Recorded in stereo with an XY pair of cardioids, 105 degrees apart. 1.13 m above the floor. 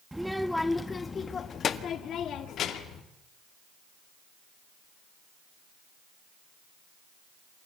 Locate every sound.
0.1 s a child speaking: 5° right, 1.2 m; by 3.0 s 75° left, 2 m